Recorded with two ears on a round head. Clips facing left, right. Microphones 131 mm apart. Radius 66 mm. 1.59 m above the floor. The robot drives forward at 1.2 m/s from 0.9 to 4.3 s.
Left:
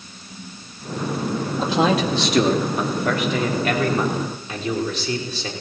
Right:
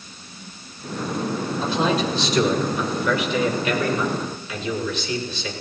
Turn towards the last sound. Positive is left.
turn(degrees=30)  # may be behind; listen again after turning